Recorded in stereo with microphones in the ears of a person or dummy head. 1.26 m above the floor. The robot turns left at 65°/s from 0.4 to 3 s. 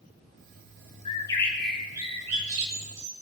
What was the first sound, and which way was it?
A bird, 40° left.